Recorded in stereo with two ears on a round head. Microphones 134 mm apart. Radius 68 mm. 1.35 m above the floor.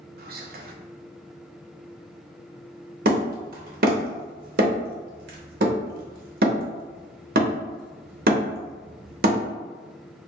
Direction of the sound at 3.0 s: 60° right (ahead or behind).